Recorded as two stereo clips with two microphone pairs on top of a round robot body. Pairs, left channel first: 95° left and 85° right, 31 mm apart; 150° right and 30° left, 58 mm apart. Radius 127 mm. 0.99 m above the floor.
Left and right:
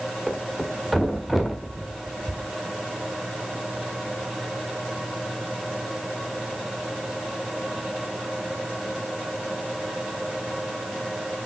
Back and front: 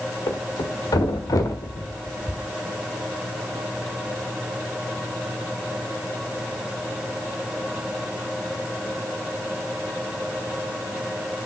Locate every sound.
0.3 s a thud: 170° right, 1.4 m